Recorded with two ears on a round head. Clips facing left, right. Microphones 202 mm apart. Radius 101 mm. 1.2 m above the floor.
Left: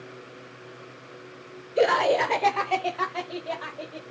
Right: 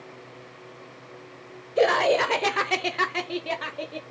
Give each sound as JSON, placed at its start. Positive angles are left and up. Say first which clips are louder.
{"t": 1.8, "sound": "laughter", "louder": "right 1 dB", "side_deg": 5, "distance_m": 0.7}